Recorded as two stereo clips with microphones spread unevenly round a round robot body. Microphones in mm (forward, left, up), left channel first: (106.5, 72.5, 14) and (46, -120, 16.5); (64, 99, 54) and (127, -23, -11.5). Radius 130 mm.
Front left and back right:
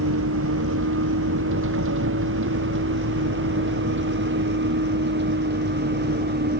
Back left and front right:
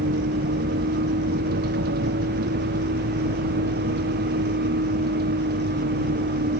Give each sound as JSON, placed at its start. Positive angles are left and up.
{"t": 0.0, "sound": "a vehicle", "azimuth_deg": -90}